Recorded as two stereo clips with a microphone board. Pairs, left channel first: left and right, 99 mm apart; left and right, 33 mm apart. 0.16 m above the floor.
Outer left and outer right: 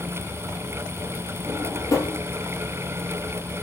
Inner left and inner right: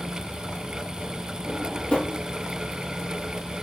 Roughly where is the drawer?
Left.